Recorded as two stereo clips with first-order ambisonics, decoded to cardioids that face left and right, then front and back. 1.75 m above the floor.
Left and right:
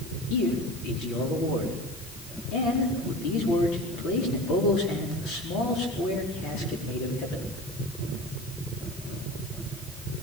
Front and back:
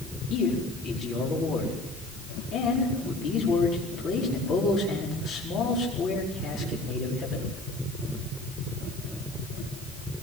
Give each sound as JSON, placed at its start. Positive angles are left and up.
{"t": 0.3, "sound": "a man speaking", "azimuth_deg": 55, "distance_m": 5.0}